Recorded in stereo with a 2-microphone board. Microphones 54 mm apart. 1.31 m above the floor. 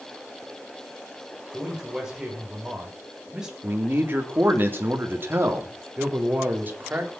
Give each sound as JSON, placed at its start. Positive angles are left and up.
{"t": 1.5, "sound": "a man speaking", "side_deg": -15, "distance_m": 7.0}
{"t": 3.6, "sound": "a man speaking", "side_deg": -45, "distance_m": 3.0}
{"t": 6.0, "sound": "a man speaking", "side_deg": -35, "distance_m": 4.5}